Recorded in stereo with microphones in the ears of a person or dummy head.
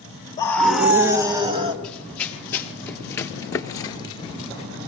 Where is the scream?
20° left (ahead or behind), 1.2 m; by 1.7 s 30° right (ahead or behind), 2.5 m.